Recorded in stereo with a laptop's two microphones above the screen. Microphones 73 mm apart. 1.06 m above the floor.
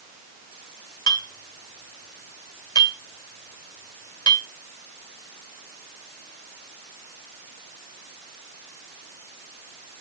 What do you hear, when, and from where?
1.1 s a clink: 70° left (ahead or behind), 1.7 m